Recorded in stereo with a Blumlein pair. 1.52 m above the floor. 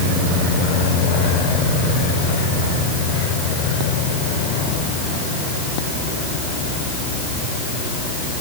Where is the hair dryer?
I don't hear a hair dryer.